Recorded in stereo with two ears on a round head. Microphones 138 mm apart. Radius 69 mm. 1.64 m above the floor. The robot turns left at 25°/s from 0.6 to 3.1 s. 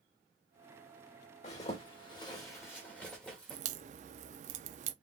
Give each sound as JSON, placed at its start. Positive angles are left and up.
{"t": 1.4, "sound": "a zipper", "side_deg": 45, "distance_m": 2.0}
{"t": 3.5, "sound": "a crack", "side_deg": -45, "distance_m": 0.6}